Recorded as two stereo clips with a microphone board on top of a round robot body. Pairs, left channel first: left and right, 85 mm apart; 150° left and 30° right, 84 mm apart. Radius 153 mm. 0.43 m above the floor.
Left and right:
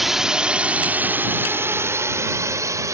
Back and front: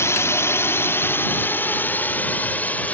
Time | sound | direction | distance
0.0 | a drone | 175° right | ?